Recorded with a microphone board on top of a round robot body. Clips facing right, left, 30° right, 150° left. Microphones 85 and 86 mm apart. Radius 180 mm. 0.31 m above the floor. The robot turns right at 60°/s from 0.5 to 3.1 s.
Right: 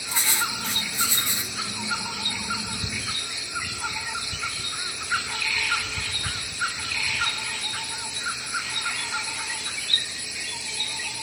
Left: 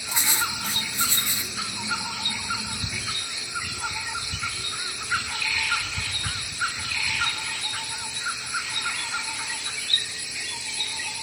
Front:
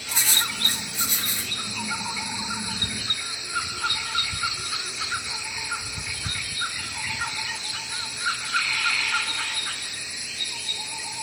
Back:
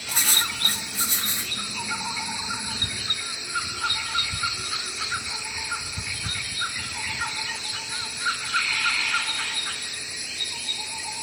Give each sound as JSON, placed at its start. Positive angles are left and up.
{"t": 0.1, "sound": "writing", "azimuth_deg": 155, "distance_m": 1.5}